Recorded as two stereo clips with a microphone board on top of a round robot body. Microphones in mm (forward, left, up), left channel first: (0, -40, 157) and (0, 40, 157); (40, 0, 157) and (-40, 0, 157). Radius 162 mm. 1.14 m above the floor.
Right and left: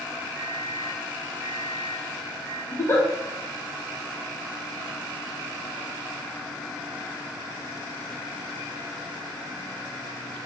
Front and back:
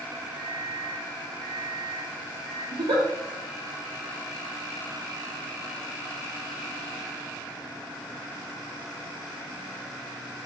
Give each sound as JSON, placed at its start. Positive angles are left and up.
{"t": 0.3, "sound": "a microwave", "azimuth_deg": -10, "distance_m": 1.1}
{"t": 2.7, "sound": "a giggle", "azimuth_deg": -150, "distance_m": 0.7}